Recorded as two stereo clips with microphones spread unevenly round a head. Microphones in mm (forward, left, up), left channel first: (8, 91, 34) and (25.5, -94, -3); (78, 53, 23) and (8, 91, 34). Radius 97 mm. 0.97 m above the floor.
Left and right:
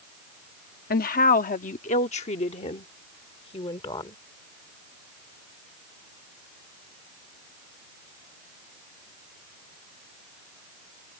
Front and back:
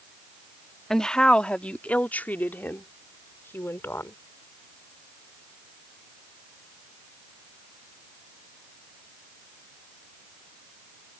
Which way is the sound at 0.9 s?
55° left.